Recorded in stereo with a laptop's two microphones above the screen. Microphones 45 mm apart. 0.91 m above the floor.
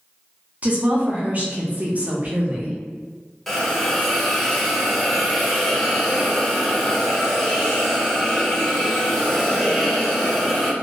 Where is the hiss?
5° left (ahead or behind), 0.8 m.